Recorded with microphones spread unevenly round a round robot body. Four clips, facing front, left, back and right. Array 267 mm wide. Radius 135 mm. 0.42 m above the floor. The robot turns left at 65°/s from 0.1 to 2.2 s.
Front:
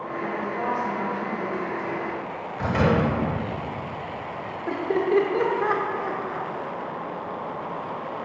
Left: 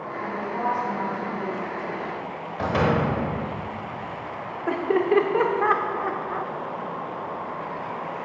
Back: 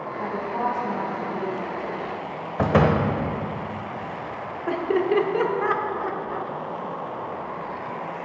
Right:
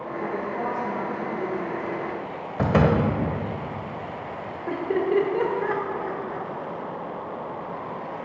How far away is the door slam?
About 1.0 m.